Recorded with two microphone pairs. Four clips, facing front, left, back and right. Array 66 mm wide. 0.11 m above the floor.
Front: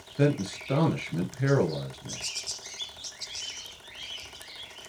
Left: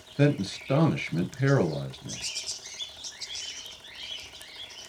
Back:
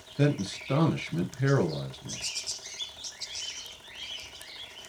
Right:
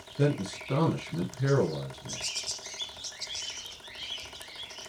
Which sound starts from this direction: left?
A man speaking, at 0.2 s.